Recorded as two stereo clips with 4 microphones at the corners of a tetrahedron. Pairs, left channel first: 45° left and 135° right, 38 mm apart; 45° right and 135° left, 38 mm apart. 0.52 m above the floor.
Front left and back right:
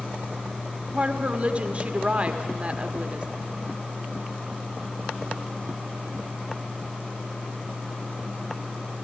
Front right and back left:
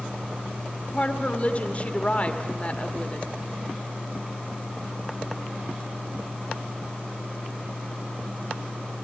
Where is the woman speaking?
90° right, 1.4 m.